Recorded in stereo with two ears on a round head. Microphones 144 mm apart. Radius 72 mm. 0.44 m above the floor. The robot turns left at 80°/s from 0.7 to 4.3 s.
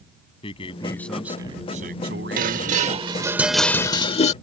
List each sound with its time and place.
0.4 s a man speaking: 35° left; by 3.2 s 160° right
2.4 s dishes clattering: 85° right; by 4.3 s 120° left